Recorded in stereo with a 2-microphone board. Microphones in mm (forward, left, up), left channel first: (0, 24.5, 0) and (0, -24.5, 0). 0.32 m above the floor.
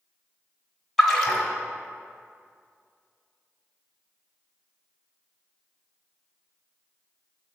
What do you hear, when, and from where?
1.0 s a splash: centre (ahead or behind), 1.3 m